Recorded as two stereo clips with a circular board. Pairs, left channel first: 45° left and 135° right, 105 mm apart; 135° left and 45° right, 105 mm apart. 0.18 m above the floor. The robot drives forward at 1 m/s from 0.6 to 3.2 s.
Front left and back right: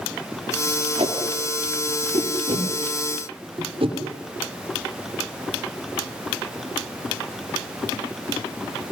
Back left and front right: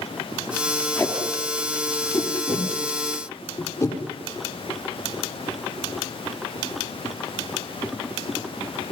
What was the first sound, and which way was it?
Tape being pulled, 160° right.